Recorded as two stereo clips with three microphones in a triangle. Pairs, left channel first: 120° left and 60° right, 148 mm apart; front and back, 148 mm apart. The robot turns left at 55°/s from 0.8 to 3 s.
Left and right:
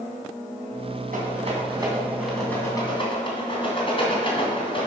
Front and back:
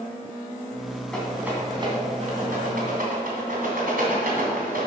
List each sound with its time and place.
1.1 s a rattle: 85° right, 3 m; by 4.9 s 175° left, 3 m